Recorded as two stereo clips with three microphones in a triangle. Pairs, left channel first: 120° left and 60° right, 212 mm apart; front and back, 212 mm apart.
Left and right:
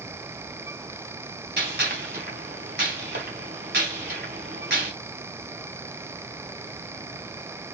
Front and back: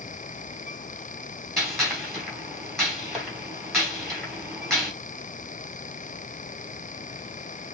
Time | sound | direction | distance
1.6 | a gunshot | 90° right | 3 m